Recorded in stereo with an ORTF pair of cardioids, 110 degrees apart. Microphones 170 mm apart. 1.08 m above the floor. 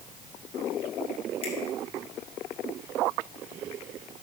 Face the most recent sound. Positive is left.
turn(degrees=35)